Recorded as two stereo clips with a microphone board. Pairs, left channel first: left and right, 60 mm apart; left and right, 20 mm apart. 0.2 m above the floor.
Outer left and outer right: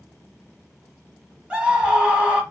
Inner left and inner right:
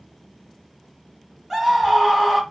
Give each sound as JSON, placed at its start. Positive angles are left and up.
{"t": 1.5, "sound": "a scream", "side_deg": -15, "distance_m": 1.0}